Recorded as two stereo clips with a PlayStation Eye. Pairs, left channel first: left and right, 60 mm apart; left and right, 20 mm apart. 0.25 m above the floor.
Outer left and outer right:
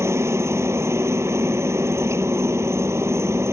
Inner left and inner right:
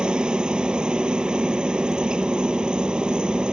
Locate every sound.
0.0 s a helicopter: 50° right (ahead or behind)